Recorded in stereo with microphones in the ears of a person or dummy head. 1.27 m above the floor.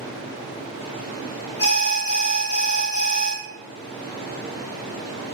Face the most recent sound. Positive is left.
turn(degrees=35)  # may be behind; listen again after turning